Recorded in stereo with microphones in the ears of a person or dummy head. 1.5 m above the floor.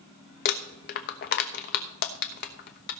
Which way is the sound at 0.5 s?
50° left (ahead or behind).